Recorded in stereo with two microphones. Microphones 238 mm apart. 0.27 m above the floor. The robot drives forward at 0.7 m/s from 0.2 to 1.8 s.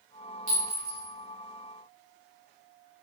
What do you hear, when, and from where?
0.5 s a clink: 70° right (ahead or behind), 1.5 m; by 1.1 s 65° right (ahead or behind), 1.5 m